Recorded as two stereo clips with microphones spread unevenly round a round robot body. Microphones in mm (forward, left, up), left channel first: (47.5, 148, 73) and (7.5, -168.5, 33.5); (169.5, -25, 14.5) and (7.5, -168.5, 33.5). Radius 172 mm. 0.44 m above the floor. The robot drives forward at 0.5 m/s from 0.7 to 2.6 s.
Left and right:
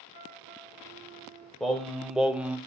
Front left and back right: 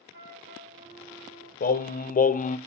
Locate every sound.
0.1 s a flute: 110° right, 5.5 m; by 1.5 s 115° right, 5.5 m
1.6 s singing: 5° right, 1.0 m; by 2.6 s 15° right, 0.5 m